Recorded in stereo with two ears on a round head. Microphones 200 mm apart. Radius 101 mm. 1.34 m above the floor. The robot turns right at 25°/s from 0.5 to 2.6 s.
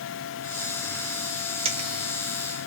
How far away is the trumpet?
I don't hear a trumpet.